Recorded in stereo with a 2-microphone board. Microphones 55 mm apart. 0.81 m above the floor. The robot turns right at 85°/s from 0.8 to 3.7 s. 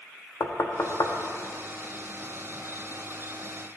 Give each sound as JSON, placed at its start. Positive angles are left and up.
{"t": 0.4, "sound": "knocking", "side_deg": 50, "distance_m": 0.6}